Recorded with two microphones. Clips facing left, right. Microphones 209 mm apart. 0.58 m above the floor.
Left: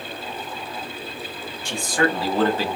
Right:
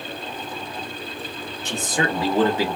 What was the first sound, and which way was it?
A man speaking, 20° right (ahead or behind).